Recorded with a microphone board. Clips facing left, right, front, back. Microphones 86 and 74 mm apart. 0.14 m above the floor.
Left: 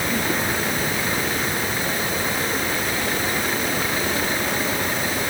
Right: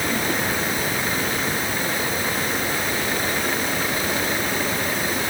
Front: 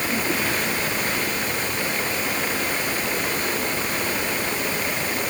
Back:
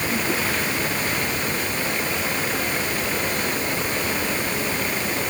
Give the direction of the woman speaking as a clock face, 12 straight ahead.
I don't hear a woman speaking.